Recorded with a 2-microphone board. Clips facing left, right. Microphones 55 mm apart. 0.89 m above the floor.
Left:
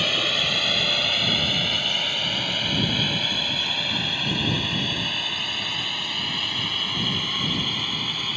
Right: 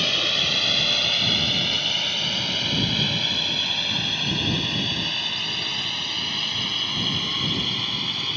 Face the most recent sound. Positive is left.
turn(degrees=5)  # may be behind; listen again after turning